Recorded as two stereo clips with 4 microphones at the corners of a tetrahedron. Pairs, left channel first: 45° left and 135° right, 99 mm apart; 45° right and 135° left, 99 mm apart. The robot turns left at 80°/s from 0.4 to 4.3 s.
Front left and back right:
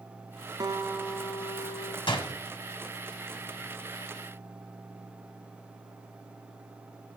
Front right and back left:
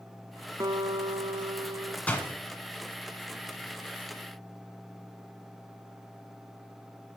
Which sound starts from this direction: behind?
A guitar, at 0.6 s.